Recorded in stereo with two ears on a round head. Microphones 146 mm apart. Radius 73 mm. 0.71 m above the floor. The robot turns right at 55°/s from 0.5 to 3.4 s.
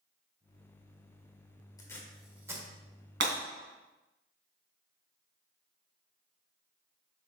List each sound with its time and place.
1.8 s tape being pulled: 25° left (ahead or behind), 1.6 m; by 2.7 s 25° right (ahead or behind), 1.6 m
3.2 s breaking glass: 70° right (ahead or behind), 2.5 m; by 3.4 s 60° right (ahead or behind), 2.5 m